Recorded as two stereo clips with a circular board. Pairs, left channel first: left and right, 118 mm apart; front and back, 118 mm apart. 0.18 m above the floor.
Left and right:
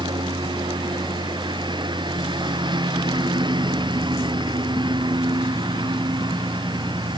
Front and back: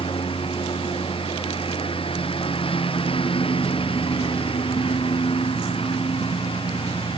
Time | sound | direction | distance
0.0 | a lawn mower | 40° right | ?